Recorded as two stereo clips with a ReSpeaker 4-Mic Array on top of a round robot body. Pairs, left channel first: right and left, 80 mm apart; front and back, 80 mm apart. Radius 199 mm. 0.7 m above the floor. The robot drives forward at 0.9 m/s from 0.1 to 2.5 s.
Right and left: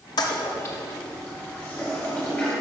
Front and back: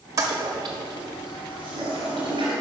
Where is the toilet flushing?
130° right, 0.6 m; by 2.5 s 170° right, 2.5 m.